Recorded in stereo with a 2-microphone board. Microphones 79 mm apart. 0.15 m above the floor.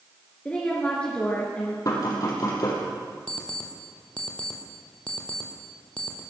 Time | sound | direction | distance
0.5 | a woman speaking | 15° left (ahead or behind) | 2.5 m
1.9 | knocking | 45° left (ahead or behind) | 3.5 m
3.3 | an alarm clock | 15° left (ahead or behind) | 2.5 m